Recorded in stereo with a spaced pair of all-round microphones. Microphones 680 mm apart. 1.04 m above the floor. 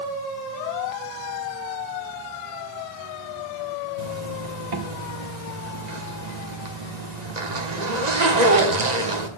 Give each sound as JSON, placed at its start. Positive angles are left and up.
{"t": 4.0, "sound": "a zipper", "side_deg": -75, "distance_m": 1.5}